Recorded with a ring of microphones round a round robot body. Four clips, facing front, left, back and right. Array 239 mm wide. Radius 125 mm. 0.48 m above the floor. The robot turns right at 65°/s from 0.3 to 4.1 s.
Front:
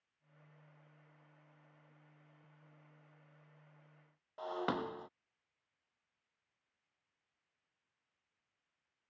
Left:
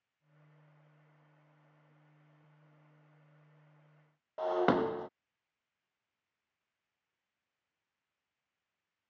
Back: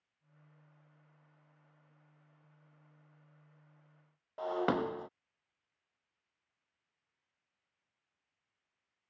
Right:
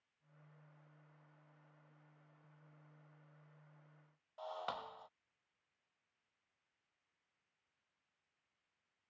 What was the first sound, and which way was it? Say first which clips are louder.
Breaking glass: left 16 dB, back 6 dB; 110° left.